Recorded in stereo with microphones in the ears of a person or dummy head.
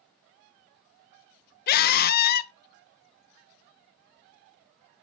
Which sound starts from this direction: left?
A scream, at 1.7 s.